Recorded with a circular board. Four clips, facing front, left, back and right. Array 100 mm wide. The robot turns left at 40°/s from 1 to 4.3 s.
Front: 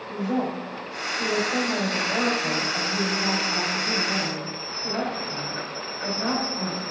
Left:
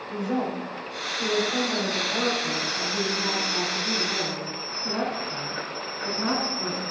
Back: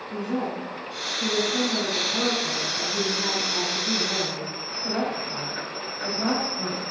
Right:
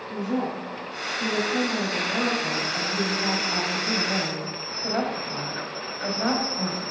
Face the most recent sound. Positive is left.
turn(degrees=-95)